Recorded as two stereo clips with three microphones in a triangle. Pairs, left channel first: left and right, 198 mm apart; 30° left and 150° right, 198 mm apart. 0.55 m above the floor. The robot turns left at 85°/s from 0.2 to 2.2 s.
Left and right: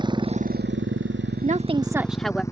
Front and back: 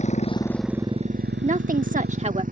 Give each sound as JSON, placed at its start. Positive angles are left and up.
{"t": 0.0, "sound": "a motorcycle", "azimuth_deg": -25}
{"t": 1.4, "sound": "a woman speaking", "azimuth_deg": -115}